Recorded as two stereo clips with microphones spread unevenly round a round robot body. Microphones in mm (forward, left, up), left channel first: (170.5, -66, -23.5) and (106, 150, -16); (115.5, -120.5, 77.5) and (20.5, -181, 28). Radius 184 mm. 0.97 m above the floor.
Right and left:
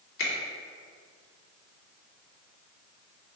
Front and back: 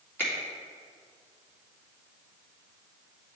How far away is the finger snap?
About 2.5 m.